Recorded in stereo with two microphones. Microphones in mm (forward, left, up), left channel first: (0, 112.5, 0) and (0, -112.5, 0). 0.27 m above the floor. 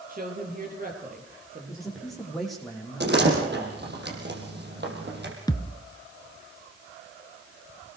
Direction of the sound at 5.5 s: 15° left (ahead or behind).